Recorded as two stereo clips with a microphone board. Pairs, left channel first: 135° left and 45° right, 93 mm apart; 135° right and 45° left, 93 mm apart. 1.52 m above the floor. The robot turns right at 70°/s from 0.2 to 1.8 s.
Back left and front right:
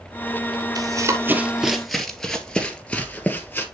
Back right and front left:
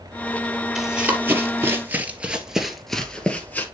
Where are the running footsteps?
45° right, 1.9 m; by 3.6 s straight behind, 1.6 m.